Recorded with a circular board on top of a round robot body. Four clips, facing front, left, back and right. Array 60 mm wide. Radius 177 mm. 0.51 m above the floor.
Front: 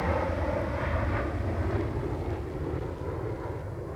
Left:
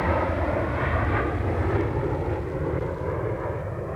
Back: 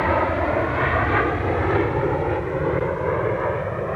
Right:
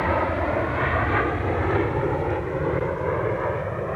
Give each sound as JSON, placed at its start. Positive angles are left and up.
{"t": 0.0, "sound": "an aircraft", "azimuth_deg": -165}